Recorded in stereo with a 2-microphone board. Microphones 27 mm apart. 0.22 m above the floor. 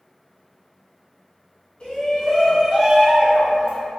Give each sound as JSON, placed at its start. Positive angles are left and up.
{"t": 1.8, "sound": "a shout", "side_deg": 40, "distance_m": 1.5}